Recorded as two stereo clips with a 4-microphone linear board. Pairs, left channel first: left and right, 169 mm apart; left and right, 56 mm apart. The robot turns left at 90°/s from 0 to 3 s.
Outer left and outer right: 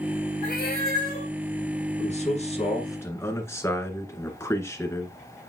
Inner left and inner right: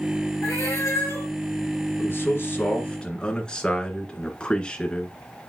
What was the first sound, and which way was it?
A cat meowing, 135° left.